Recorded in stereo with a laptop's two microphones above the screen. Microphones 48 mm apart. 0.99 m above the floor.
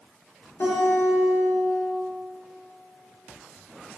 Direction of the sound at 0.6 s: 65° left (ahead or behind).